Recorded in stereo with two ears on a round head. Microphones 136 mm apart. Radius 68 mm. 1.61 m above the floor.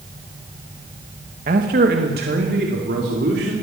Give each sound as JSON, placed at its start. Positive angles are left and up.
{"t": 1.5, "sound": "a man speaking", "side_deg": -55, "distance_m": 2.0}